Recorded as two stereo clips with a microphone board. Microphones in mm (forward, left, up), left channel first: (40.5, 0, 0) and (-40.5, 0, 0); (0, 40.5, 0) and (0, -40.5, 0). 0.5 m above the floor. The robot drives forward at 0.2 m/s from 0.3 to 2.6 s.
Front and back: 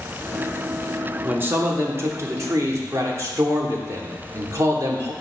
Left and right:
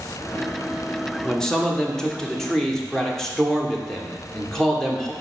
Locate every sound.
1.2 s a man speaking: 160° left, 0.7 m; by 5.1 s 170° left, 0.9 m